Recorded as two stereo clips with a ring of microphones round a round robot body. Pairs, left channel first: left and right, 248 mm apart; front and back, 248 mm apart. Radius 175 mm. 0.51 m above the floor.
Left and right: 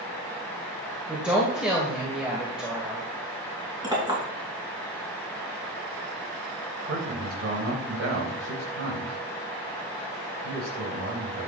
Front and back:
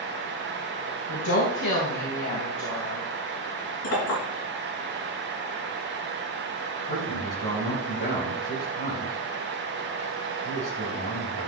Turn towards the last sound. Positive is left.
turn(degrees=-65)